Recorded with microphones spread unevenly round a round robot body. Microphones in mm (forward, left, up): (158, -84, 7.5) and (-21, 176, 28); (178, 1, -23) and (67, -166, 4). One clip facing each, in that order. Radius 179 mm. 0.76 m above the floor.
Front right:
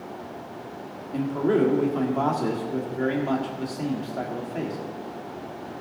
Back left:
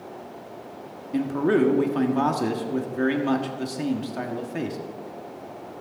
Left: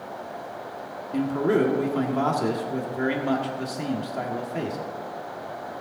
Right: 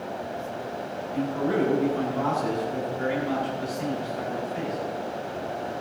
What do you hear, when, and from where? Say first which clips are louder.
1.1 s a man speaking: back left 1 dB, left 3 dB; 70° left, 1.6 m